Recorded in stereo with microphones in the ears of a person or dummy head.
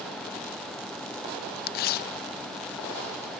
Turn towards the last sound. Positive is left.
turn(degrees=45)  # may be behind; listen again after turning